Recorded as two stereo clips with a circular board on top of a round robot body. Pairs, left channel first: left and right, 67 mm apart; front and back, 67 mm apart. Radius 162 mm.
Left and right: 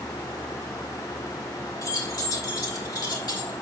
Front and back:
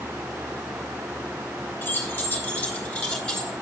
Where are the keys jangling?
55° left, 3.5 m; by 3.5 s 80° left, 3.5 m.